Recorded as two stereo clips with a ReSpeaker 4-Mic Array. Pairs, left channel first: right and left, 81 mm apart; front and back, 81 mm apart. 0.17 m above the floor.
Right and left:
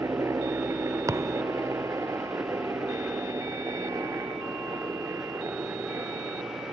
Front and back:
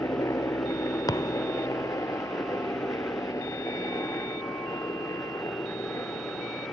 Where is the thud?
35° left.